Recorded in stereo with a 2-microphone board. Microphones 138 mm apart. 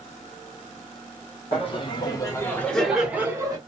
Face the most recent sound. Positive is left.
turn(degrees=-25)  # may be behind; listen again after turning